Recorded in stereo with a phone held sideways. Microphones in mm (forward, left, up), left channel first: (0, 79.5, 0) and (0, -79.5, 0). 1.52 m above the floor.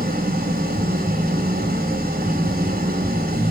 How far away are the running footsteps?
I don't hear running footsteps.